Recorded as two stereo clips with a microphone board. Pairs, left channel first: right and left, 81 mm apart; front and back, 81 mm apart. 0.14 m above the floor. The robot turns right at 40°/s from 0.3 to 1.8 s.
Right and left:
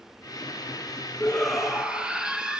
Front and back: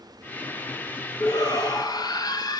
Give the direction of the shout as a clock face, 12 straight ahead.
12 o'clock.